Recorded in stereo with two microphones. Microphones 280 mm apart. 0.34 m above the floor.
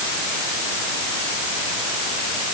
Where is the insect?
No insect in this recording.